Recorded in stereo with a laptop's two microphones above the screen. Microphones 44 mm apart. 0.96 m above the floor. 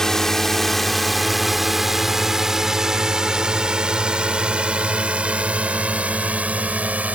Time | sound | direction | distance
0.0 | a drone | 10° left (ahead or behind) | ?